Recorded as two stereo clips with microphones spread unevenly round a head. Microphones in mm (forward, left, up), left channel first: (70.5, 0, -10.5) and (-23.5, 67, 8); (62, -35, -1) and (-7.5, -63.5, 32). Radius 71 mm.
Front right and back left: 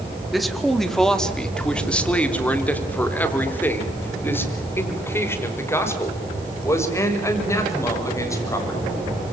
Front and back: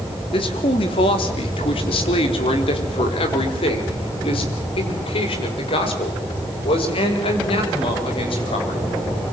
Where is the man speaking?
55° left, 3 m; by 8.8 s 30° left, 7.5 m.